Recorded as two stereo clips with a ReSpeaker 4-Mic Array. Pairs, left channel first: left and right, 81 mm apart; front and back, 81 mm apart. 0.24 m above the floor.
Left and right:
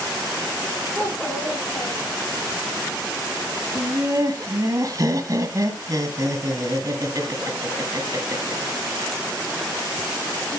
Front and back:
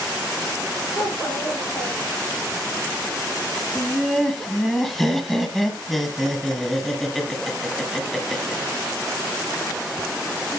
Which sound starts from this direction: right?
Laughter, at 3.8 s.